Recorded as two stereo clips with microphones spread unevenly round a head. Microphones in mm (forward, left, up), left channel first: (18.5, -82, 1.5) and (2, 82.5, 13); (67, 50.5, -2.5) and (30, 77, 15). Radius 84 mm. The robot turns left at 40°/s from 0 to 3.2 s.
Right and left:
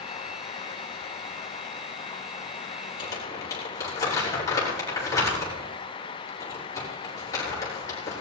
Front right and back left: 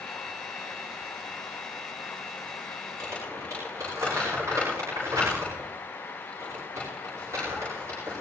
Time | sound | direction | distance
3.0 | crumpling | 150° right | 6.5 m